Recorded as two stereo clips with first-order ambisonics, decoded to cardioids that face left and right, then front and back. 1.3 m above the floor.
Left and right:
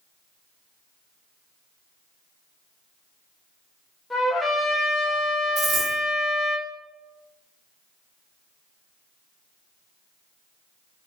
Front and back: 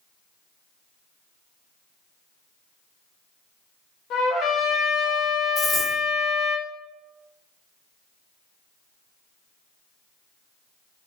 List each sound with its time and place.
4.1 s a trumpet: 5° left, 0.7 m
5.6 s a dropped coin: 55° right, 0.8 m